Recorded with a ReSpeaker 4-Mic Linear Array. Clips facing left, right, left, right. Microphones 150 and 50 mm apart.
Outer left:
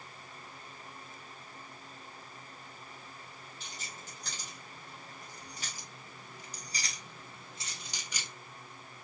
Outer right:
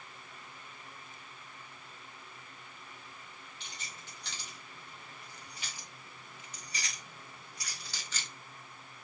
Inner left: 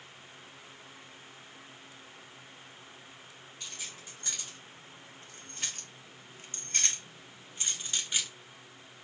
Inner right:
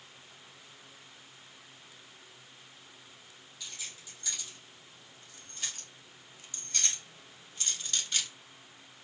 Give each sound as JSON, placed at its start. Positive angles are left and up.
{"t": 3.6, "sound": "keys jangling", "side_deg": 40, "distance_m": 2.5}